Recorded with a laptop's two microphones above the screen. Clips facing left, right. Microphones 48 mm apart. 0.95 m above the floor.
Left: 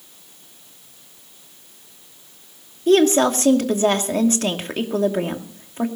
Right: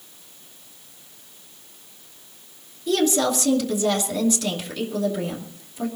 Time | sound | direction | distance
2.9 | a woman speaking | 45° left (ahead or behind) | 2.5 m